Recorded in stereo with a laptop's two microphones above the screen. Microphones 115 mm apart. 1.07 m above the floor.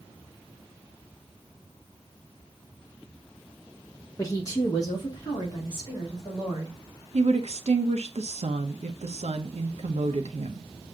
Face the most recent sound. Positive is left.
turn(degrees=-70)  # may be behind; listen again after turning